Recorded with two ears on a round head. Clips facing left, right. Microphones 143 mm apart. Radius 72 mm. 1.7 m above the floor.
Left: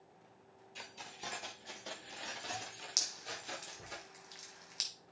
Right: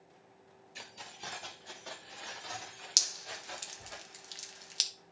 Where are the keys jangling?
5° right (ahead or behind), 2 m; by 4.0 s 50° left (ahead or behind), 4.5 m.